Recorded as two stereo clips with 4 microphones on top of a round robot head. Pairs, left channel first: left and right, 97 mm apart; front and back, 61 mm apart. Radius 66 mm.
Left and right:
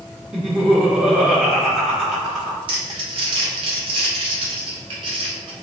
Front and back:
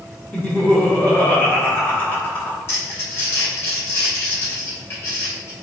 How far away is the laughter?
About 1.1 m.